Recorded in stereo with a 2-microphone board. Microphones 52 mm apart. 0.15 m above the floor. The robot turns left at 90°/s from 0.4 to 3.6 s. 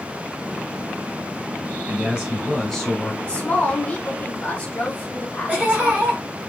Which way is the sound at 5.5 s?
15° right (ahead or behind).